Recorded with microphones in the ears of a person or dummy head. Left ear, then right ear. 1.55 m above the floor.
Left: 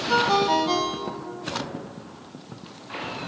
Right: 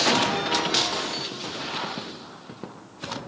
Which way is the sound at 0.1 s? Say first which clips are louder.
Left 3 dB; 45° left (ahead or behind).